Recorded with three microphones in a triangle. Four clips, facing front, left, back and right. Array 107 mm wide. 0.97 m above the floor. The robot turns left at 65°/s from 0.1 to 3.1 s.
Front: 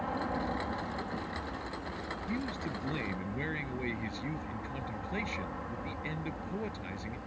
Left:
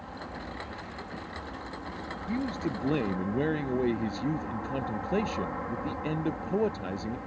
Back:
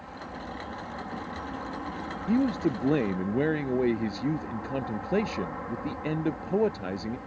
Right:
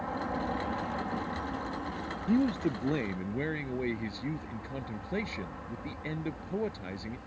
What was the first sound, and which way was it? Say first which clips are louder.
An aircraft: right 7 dB, front 6 dB; 45° right.